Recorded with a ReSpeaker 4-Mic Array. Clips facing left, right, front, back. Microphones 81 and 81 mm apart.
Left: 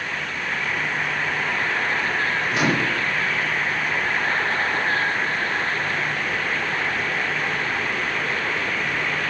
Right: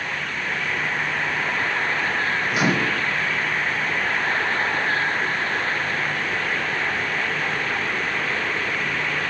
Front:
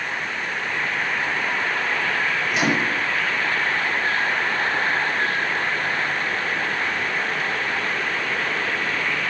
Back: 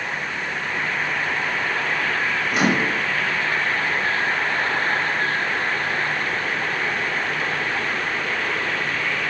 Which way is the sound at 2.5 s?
160° right.